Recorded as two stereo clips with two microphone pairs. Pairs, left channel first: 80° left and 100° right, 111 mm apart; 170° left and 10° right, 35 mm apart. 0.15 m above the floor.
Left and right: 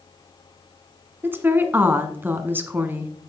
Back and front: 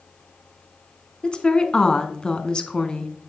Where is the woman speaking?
155° right, 1.2 m.